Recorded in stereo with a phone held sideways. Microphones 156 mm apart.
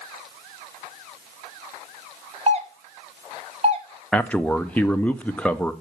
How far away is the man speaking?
About 0.6 m.